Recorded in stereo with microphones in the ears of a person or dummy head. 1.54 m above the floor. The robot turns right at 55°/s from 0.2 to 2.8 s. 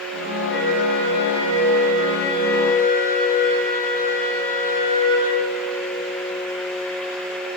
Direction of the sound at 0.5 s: 115° left.